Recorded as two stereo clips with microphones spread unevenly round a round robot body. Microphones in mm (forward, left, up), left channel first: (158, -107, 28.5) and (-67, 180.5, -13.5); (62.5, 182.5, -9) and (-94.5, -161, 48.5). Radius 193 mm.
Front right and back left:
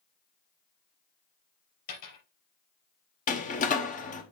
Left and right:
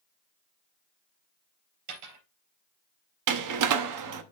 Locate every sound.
1.9 s a dropped coin: 90° right, 3.5 m
3.3 s a door slam: 120° right, 0.8 m